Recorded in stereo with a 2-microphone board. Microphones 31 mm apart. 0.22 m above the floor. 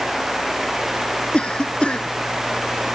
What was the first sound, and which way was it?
A cough, 40° left (ahead or behind).